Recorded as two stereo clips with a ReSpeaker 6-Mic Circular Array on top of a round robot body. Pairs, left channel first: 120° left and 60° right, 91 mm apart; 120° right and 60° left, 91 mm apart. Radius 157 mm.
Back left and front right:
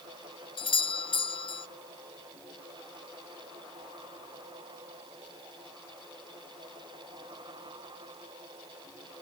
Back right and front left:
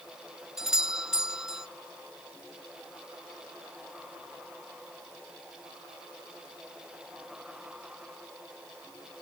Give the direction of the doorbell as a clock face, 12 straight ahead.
7 o'clock.